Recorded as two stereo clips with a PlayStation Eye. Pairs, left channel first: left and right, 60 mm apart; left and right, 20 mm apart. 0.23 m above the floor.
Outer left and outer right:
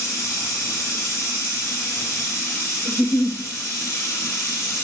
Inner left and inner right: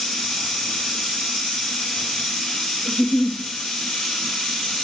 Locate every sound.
0.0 s running water: 55° left (ahead or behind), 1.5 m
2.9 s a giggle: 60° left (ahead or behind), 0.7 m